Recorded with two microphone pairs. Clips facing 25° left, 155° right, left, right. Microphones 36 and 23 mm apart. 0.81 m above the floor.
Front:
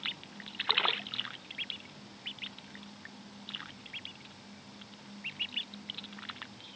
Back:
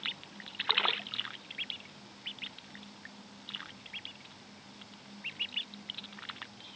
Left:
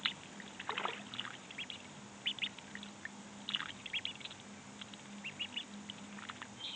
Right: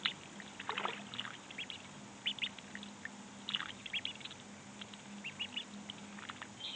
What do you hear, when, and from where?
Only background noise.